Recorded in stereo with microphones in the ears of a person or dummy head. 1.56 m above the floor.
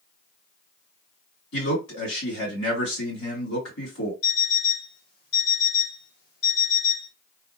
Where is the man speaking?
55° left (ahead or behind), 2.5 m.